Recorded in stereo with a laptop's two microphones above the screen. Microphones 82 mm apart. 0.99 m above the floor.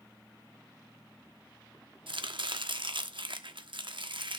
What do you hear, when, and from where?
2.1 s chopping: 80° right, 1.0 m